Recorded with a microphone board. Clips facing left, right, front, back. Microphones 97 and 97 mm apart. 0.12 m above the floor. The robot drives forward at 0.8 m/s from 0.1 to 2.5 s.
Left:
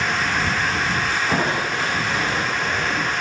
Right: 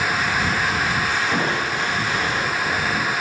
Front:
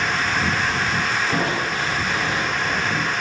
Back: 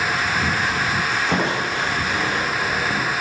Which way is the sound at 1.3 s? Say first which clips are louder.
Left 1 dB, back 1 dB; 155° left.